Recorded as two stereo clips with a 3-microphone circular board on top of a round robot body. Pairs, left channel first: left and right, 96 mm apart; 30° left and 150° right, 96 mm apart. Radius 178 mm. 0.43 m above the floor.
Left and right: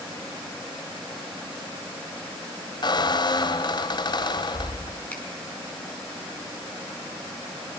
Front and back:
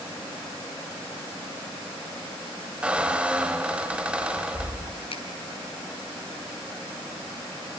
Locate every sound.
2.8 s a squeak: 130° left, 2 m
5.1 s a finger snap: 15° left, 6 m